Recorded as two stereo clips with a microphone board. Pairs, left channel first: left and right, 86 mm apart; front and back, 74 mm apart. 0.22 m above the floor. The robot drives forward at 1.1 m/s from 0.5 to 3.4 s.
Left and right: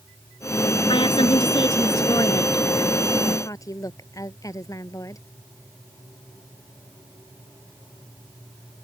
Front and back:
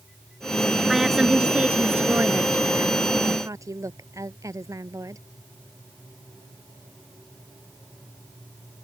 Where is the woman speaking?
90° left; by 5.2 s 140° left.